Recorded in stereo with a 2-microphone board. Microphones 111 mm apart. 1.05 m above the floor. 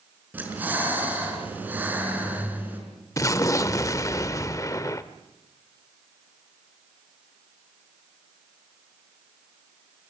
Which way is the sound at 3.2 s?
30° left (ahead or behind).